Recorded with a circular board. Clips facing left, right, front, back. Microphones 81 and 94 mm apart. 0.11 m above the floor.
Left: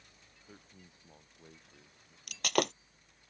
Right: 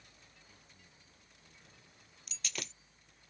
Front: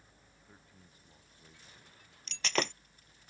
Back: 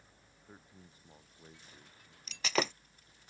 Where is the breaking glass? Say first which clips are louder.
Left 16 dB, back 1 dB; 95° left.